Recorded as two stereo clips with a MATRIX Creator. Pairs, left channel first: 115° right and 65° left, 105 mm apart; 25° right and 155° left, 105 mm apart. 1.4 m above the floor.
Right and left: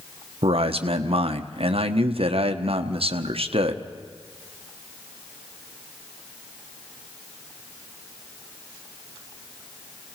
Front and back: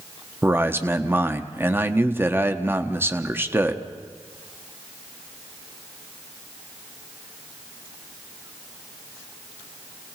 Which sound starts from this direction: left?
A man speaking, at 0.4 s.